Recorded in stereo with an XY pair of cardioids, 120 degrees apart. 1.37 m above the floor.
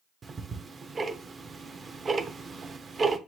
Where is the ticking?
35° right, 0.7 m.